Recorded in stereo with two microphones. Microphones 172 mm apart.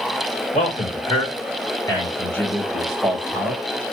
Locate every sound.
0.5 s a man speaking: 40° left (ahead or behind), 2.0 m; by 3.6 s 10° right (ahead or behind), 1.9 m